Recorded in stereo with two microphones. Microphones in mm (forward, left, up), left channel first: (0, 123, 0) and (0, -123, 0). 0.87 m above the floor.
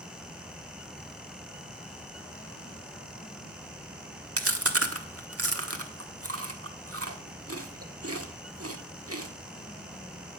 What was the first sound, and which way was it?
Chewing, 65° right (ahead or behind).